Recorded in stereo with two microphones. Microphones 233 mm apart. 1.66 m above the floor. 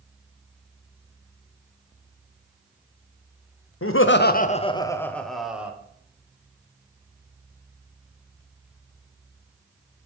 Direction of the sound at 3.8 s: 70° left (ahead or behind).